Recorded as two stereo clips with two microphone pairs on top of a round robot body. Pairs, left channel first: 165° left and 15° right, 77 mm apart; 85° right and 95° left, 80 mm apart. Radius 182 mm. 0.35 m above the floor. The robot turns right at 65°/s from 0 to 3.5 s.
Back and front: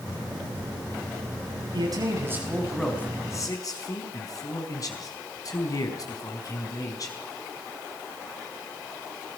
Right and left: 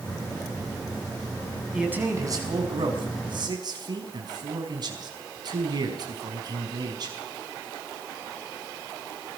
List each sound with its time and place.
1.7 s a man speaking: 15° left, 4.5 m; by 7.1 s 130° left, 4.5 m